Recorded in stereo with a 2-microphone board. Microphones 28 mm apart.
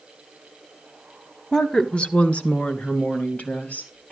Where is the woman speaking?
15° left (ahead or behind), 1.0 m; by 4.1 s 65° left (ahead or behind), 4 m.